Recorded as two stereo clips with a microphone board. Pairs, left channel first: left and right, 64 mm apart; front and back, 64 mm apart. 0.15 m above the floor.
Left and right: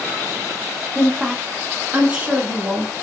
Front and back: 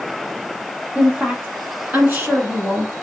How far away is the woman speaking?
About 1.1 m.